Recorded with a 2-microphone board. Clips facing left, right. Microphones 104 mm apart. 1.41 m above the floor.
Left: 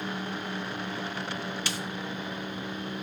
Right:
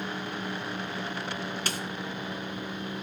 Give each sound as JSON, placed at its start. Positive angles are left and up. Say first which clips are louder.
{"t": 1.7, "sound": "a snare drum", "louder": "right 1 dB", "side_deg": -45, "distance_m": 2.0}